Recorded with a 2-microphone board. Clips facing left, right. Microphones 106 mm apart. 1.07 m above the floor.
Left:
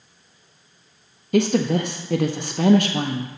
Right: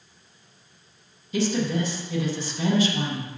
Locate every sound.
1.3 s a woman speaking: 60° left (ahead or behind), 0.6 m